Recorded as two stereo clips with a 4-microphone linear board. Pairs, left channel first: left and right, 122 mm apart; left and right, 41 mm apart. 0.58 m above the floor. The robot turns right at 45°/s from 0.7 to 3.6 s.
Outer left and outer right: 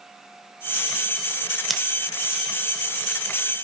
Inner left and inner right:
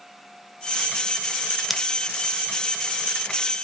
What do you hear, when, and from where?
1.7 s scissors: centre (ahead or behind), 0.8 m; by 1.8 s 5° left (ahead or behind), 0.8 m